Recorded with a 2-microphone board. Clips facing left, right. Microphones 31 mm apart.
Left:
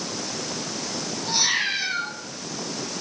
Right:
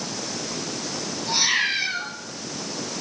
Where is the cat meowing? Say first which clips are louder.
Right 2 dB; 30° right (ahead or behind), 6.5 m.